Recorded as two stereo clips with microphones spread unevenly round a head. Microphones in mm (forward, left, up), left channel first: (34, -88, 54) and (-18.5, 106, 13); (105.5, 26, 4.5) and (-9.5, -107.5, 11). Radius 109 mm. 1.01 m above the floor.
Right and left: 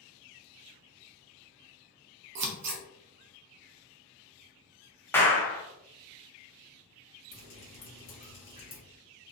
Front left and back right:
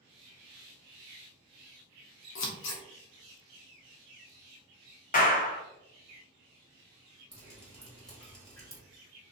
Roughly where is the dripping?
Ahead right.